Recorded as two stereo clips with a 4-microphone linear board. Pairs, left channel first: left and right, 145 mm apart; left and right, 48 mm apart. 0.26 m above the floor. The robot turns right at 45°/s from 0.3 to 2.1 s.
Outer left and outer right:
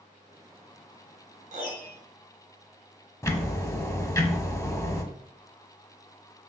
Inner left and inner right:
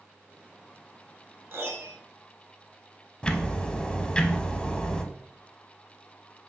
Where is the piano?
60° right (ahead or behind), 0.8 m; by 2.0 s 75° right (ahead or behind), 0.8 m.